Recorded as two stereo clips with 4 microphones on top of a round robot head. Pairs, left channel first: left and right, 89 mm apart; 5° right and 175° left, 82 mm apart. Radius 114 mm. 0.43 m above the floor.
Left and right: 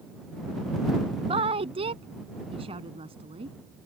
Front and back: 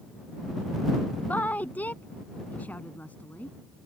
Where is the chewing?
I don't hear chewing.